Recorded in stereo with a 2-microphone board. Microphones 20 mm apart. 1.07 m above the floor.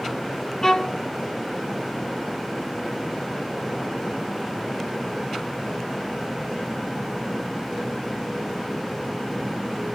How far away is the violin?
About 0.6 m.